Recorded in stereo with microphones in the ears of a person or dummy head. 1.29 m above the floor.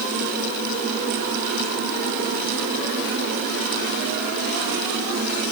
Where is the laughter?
I don't hear laughter.